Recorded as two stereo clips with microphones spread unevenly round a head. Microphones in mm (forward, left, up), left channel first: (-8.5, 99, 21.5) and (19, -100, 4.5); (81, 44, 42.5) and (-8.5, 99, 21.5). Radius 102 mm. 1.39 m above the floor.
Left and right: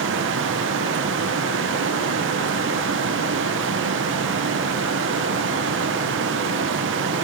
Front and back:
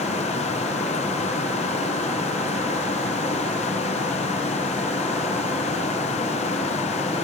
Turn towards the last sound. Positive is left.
turn(degrees=-70)